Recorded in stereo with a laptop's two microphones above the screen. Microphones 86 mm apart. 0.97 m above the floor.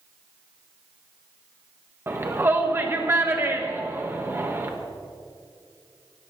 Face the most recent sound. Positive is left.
turn(degrees=-30)  # may be behind; listen again after turning